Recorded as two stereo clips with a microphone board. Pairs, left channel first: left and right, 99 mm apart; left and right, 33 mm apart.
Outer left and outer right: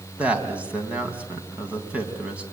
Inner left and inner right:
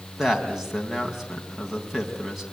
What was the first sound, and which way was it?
A man speaking, 10° right (ahead or behind).